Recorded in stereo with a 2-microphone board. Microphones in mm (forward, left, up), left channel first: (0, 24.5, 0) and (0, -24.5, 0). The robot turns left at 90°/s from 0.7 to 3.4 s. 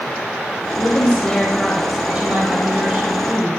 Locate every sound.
0.8 s a woman speaking: 80° left, 1.2 m; by 3.6 s 155° right, 1.2 m